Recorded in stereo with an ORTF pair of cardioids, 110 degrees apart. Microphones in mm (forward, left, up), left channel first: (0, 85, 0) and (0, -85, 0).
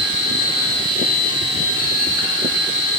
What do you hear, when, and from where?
0.0 s a machine running: 30° right, 4 m